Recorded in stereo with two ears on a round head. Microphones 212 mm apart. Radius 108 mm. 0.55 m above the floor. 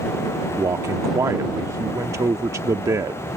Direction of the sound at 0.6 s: 15° right (ahead or behind).